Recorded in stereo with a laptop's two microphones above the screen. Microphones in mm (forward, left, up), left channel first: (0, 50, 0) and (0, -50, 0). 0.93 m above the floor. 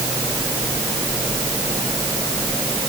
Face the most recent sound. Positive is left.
No sound to turn to.